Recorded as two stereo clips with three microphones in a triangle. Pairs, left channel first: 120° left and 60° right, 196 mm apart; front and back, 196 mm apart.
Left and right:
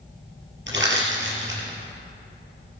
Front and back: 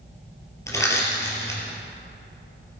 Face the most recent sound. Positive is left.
turn(degrees=-75)